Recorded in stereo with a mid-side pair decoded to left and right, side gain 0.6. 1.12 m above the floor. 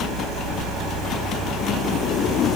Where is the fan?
70° right.